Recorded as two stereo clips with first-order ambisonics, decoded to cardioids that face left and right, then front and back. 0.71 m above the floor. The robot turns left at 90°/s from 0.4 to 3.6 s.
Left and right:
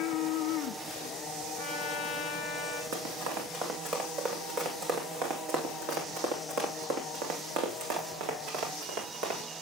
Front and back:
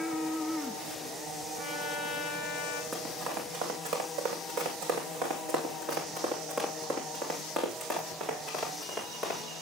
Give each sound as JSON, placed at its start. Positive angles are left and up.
{"t": 1.6, "sound": "a trumpet", "azimuth_deg": 95, "distance_m": 2.5}
{"t": 2.9, "sound": "running footsteps", "azimuth_deg": -95, "distance_m": 3.0}